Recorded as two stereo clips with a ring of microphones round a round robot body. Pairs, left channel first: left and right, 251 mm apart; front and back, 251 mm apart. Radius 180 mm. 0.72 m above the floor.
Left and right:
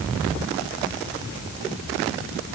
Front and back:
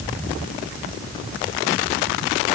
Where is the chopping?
No chopping in this recording.